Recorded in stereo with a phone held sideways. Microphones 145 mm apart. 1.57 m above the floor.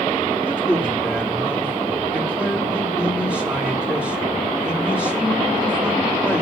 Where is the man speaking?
10° right (ahead or behind), 3.5 m.